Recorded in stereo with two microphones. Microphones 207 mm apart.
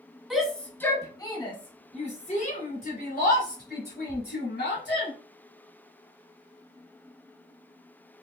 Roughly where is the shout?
Centre.